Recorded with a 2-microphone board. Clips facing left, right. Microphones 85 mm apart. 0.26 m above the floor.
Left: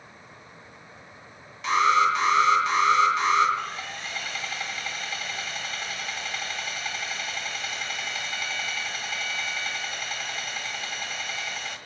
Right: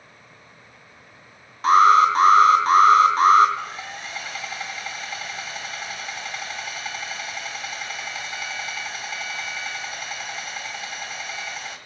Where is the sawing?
5° right (ahead or behind), 1.5 m.